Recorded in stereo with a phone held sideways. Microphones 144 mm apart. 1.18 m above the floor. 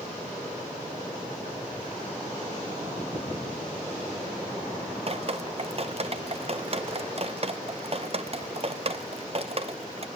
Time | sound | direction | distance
5.1 | dripping | 45° right (ahead or behind) | 0.8 m